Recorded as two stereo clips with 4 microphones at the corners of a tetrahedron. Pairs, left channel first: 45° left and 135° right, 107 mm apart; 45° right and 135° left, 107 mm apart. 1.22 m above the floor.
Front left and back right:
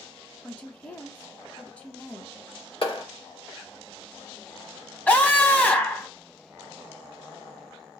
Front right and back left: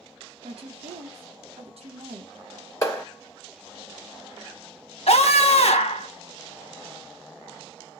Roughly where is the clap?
Ahead.